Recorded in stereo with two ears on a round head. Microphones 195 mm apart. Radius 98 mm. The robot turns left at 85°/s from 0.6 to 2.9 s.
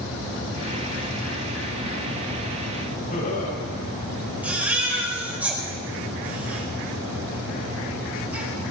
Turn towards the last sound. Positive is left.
turn(degrees=-5)  # may be behind; listen again after turning